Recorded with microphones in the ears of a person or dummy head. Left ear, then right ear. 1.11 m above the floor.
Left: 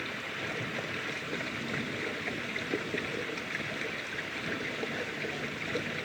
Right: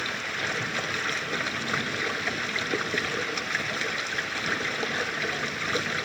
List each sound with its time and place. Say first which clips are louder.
0.0 s running water: right 7 dB; 70° right (ahead or behind)